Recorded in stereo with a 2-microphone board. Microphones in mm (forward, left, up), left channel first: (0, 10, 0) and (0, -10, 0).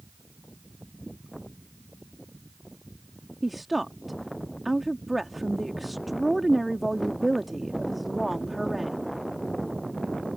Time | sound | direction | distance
3.4 | a woman speaking | 10° right (ahead or behind) | ?